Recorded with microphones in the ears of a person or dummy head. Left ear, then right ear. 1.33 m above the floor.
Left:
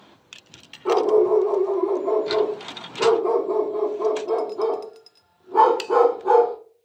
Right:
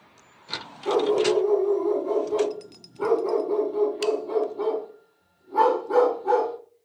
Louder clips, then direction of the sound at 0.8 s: Left 4 dB; 50° left (ahead or behind).